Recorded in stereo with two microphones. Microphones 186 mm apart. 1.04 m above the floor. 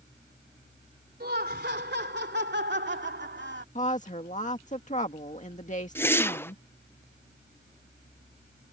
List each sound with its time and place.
1.2 s laughter: 60° right (ahead or behind); by 3.6 s 80° right
3.8 s a woman speaking: 40° left (ahead or behind)
6.0 s a whoosh: 10° left (ahead or behind)